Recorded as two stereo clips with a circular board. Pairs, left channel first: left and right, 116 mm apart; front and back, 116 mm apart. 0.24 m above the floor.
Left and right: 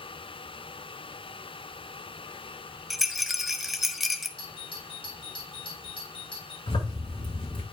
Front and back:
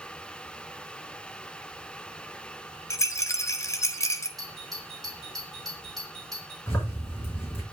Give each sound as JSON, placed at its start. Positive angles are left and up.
{"t": 2.9, "sound": "a rattle", "azimuth_deg": -5, "distance_m": 0.8}
{"t": 4.4, "sound": "a doorbell", "azimuth_deg": 90, "distance_m": 3.0}
{"t": 6.7, "sound": "a zipper", "azimuth_deg": 65, "distance_m": 4.0}